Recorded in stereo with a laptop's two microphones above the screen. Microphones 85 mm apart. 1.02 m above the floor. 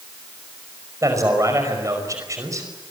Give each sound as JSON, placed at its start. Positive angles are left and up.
{"t": 1.0, "sound": "a man speaking", "side_deg": -40, "distance_m": 5.0}